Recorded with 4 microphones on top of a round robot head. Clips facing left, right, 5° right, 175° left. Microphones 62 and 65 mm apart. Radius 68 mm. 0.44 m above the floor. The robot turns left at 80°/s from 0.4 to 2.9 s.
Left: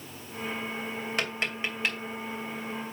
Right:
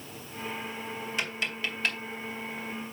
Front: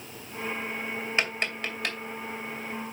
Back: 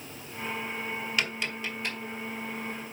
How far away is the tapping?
About 2.5 m.